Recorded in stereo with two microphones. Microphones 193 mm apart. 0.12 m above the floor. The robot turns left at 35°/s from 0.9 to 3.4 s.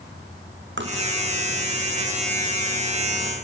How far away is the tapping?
About 3.5 m.